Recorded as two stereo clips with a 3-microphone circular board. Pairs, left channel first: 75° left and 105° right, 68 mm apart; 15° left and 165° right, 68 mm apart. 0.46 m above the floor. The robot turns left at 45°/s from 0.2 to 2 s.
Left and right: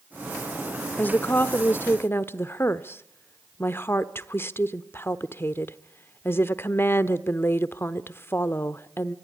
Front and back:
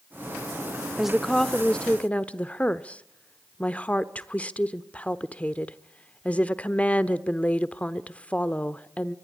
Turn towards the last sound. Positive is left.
turn(degrees=70)